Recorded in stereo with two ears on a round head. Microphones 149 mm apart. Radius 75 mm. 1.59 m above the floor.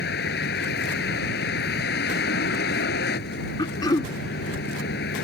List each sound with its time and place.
0.0 s a vehicle: 70° left (ahead or behind)
3.6 s throat clearing: 25° left (ahead or behind)